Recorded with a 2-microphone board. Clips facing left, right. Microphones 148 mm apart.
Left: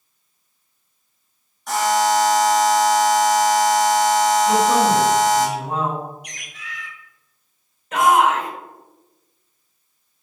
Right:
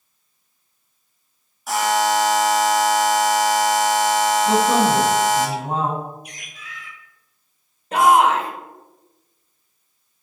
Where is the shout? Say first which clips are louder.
Right 1 dB; 30° right (ahead or behind), 1.9 m.